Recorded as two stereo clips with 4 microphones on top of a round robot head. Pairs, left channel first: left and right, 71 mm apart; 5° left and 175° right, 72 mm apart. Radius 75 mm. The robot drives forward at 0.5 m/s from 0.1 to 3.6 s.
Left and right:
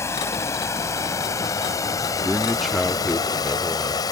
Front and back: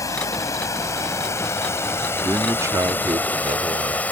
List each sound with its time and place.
0.0 s running water: 40° left; by 4.1 s 70° left
2.2 s a man speaking: 175° right; by 4.0 s straight behind